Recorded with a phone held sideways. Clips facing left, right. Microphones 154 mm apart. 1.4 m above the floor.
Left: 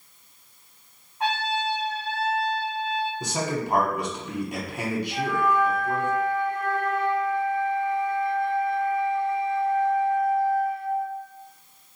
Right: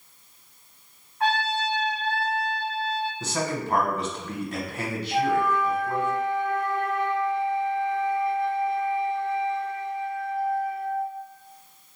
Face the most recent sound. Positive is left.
turn(degrees=-20)  # may be behind; listen again after turning